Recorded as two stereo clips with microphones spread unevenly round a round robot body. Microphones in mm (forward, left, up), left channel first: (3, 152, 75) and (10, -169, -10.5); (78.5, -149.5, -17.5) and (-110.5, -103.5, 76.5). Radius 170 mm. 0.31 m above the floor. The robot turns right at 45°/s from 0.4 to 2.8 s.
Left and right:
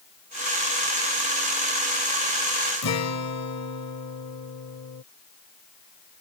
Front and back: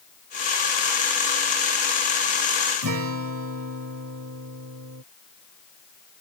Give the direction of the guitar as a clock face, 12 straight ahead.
7 o'clock.